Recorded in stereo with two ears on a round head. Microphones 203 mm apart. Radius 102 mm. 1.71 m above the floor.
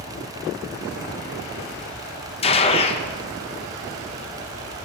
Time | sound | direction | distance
2.4 | a gunshot | 25° left (ahead or behind) | 0.9 m